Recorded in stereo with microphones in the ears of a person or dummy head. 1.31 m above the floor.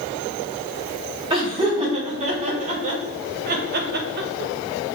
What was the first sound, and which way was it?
Laughter, 30° right (ahead or behind).